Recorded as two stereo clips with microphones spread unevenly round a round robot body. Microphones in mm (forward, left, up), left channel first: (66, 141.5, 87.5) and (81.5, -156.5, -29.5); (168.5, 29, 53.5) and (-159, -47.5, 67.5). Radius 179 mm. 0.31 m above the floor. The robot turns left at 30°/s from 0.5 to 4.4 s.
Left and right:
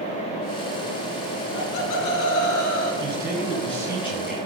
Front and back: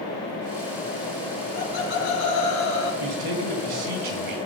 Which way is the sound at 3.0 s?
155° right.